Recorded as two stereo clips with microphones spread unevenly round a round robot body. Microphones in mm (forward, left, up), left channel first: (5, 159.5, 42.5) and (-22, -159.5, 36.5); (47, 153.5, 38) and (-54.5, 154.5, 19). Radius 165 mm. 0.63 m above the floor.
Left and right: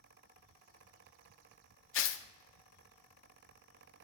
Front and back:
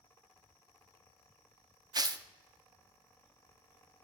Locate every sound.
1.9 s tearing paper: 135° left, 0.5 m